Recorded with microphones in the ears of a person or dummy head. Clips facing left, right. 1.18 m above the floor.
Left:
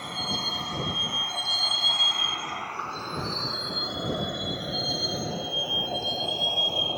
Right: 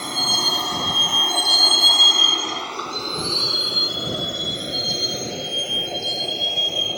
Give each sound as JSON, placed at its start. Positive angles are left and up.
{"t": 0.0, "sound": "a vehicle", "side_deg": -60}